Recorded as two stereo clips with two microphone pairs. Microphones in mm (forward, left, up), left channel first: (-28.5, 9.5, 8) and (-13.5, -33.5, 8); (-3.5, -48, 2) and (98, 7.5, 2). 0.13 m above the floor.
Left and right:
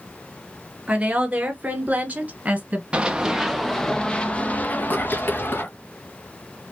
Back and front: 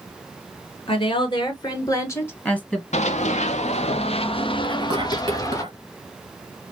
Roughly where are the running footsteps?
Behind right.